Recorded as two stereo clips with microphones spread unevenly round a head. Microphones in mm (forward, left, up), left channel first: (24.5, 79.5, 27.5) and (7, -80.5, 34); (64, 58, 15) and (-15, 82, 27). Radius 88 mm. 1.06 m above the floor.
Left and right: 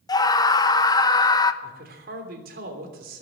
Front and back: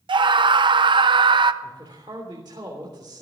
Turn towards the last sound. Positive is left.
turn(degrees=-130)